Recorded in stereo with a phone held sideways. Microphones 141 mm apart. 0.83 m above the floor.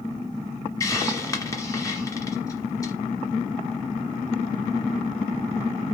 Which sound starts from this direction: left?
A hiss, at 0.8 s.